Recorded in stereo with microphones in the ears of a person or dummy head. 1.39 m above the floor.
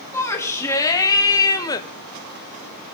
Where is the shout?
20° left (ahead or behind), 3.5 m; by 1.9 s 25° left (ahead or behind), 1.3 m.